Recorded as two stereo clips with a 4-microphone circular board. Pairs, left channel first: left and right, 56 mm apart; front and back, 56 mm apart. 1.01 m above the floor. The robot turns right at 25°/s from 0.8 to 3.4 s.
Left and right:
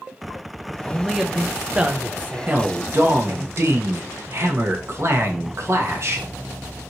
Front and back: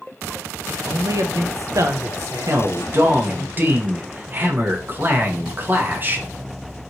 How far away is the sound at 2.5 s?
About 0.9 m.